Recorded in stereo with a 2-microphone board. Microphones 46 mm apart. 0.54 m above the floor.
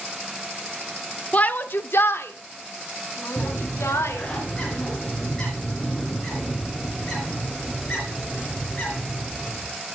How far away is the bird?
About 3.5 m.